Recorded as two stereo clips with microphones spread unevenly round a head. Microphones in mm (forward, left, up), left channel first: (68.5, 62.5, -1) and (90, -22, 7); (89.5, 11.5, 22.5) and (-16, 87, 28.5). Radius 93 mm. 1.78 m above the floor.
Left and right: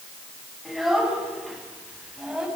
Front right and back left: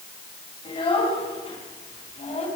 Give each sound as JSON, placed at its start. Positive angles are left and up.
{"t": 0.7, "sound": "a child speaking", "azimuth_deg": 15, "distance_m": 8.5}